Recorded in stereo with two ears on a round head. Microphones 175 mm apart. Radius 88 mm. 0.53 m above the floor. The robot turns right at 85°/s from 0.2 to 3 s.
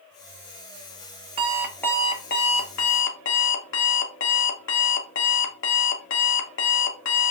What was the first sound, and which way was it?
An alarm clock, 30° right.